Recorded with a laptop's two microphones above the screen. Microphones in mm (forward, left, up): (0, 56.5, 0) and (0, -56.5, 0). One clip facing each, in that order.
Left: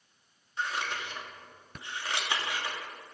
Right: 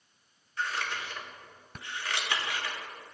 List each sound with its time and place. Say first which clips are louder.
0.6 s scissors: even; 20° left (ahead or behind), 2.5 m